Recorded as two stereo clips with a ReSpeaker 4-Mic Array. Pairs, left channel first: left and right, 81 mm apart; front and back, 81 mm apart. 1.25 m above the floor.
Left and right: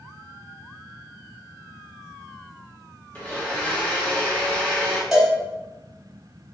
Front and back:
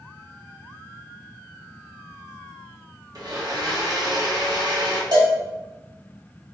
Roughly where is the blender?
Behind left.